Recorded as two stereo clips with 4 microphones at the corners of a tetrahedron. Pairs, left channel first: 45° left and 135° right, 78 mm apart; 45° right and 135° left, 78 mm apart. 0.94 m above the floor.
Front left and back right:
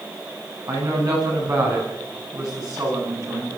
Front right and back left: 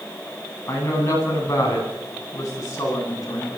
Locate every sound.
0.7 s a woman speaking: 105° right, 9 m; by 3.6 s 90° right, 10.5 m